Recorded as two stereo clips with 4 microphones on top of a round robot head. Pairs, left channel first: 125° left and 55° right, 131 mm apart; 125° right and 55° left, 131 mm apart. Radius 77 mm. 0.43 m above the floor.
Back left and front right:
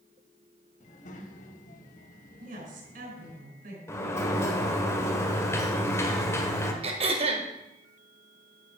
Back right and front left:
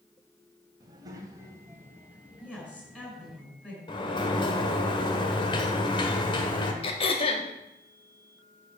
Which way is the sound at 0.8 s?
110° left.